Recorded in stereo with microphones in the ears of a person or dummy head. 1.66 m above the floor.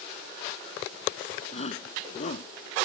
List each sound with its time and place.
1.5 s a shout: 40° left (ahead or behind)